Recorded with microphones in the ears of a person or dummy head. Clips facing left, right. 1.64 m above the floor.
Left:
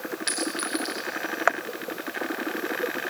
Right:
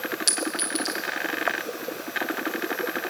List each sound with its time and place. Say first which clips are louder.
0.3 s a clink: even; 5° right (ahead or behind), 0.9 m